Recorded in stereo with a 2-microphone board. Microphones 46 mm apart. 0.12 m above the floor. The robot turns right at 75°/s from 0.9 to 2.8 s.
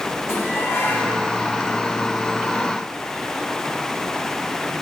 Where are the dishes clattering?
70° left (ahead or behind), 5 m; by 1.2 s 50° left (ahead or behind), 5 m.